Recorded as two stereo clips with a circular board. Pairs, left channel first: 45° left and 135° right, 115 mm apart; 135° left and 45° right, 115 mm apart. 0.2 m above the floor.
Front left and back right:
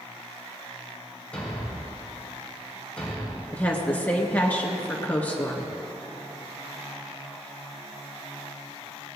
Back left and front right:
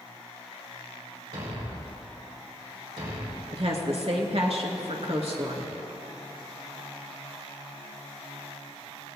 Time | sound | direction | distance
1.3 | a thud | 35° right | 4.5 m
3.5 | a woman speaking | 30° right | 2.5 m